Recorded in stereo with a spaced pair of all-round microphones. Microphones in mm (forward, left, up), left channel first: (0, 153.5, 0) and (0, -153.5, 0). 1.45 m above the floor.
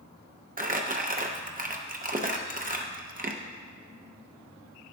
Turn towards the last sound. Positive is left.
turn(degrees=-30)  # may be behind; listen again after turning